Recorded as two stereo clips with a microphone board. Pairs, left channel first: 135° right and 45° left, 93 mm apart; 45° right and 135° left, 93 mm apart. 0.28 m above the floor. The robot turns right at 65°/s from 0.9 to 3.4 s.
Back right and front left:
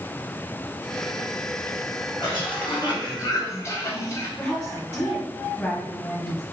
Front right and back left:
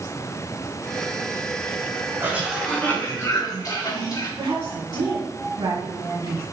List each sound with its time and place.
2.2 s a cough: 165° right, 3.5 m; by 4.3 s 85° right, 3.5 m
4.4 s a woman speaking: 165° left, 1.9 m